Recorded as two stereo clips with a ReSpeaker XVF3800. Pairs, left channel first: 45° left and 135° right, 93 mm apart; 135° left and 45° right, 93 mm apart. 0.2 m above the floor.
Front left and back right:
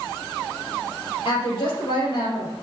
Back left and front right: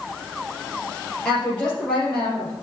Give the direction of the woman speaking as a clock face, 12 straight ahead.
10 o'clock.